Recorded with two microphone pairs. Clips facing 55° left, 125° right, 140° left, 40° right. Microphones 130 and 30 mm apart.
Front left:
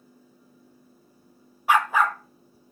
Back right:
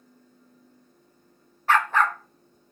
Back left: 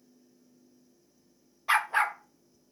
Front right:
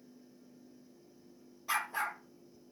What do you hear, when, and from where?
1.7 s a dog barking: 120° left, 0.5 m; by 2.7 s 140° left, 1.0 m